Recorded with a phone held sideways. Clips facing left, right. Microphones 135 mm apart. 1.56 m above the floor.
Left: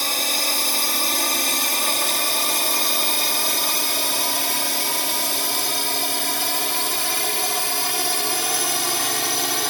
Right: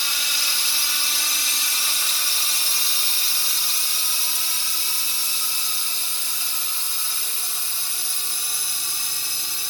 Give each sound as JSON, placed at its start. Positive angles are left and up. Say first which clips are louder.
{"t": 0.0, "sound": "a drone", "louder": "left 8 dB", "side_deg": 55}